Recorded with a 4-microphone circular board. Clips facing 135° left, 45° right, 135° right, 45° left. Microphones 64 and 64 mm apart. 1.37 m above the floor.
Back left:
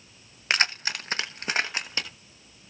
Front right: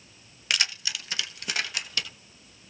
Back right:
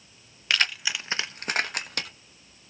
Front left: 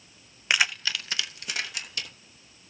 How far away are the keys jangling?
About 0.6 m.